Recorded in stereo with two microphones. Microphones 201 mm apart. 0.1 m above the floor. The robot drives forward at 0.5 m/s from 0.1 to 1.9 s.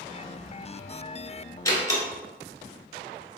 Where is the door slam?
15° left (ahead or behind), 1.3 m.